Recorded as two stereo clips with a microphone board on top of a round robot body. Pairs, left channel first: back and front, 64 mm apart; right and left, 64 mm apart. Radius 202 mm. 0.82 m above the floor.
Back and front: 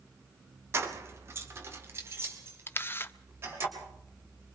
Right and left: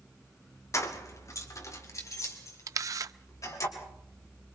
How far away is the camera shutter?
About 0.7 m.